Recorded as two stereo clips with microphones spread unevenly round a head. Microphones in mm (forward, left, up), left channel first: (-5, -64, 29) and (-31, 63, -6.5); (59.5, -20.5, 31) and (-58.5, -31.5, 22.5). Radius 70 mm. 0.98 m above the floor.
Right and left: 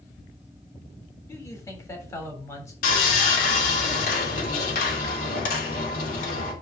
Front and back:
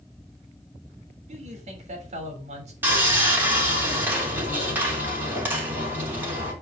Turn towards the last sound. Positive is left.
turn(degrees=-105)